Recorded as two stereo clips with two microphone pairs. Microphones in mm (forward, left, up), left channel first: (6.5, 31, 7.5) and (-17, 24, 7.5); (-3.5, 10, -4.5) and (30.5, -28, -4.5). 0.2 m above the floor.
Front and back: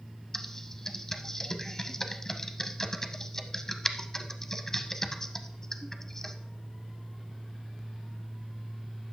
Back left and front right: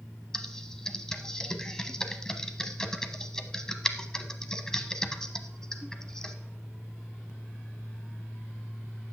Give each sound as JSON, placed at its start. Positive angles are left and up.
{"t": 0.3, "sound": "typing on a keyboard", "azimuth_deg": 65, "distance_m": 0.8}